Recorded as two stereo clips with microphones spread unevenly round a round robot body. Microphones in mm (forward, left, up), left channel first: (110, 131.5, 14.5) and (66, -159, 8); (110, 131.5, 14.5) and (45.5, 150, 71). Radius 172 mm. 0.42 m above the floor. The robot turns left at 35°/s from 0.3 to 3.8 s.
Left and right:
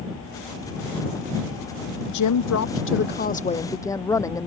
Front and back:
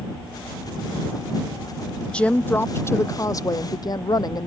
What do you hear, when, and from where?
2.1 s a woman speaking: 60° left; by 4.5 s straight ahead